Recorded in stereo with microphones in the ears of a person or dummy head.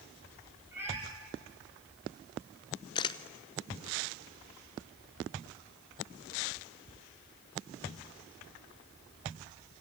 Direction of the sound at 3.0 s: 25° left (ahead or behind).